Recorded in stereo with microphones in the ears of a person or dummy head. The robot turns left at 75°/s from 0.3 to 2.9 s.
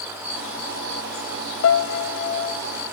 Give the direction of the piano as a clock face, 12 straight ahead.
9 o'clock.